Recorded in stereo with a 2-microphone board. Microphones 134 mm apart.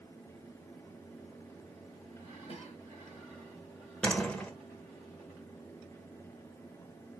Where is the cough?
50° left (ahead or behind), 2.5 m.